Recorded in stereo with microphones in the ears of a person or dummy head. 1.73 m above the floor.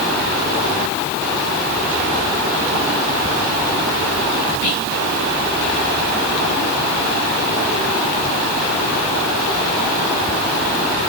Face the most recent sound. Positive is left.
turn(degrees=75)  # may be behind; listen again after turning